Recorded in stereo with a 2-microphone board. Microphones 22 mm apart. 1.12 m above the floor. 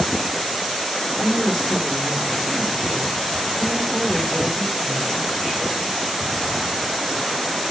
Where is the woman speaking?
35° left (ahead or behind), 4 m.